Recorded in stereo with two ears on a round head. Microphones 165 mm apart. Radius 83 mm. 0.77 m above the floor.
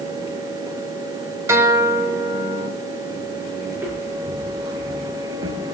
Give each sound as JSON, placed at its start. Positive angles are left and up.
{"t": 1.5, "sound": "a guitar", "side_deg": -15, "distance_m": 1.0}
{"t": 3.7, "sound": "footsteps", "side_deg": -10, "distance_m": 3.5}